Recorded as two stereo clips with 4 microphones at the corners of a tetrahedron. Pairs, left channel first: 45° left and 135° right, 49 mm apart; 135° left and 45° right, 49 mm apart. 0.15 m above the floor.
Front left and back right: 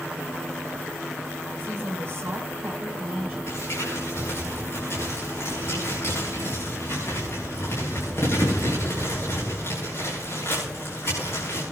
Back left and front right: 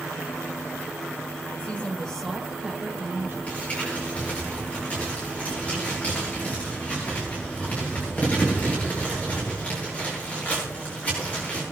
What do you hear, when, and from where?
1.6 s a woman speaking: 175° right, 2 m; by 3.4 s 55° right, 1.7 m
3.5 s crumpling: 75° left, 7.5 m